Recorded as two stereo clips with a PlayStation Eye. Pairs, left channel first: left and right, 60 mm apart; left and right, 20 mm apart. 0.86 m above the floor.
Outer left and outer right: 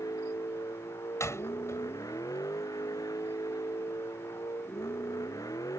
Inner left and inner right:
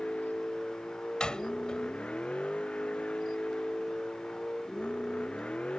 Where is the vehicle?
90° left; by 5.8 s 75° left (ahead or behind).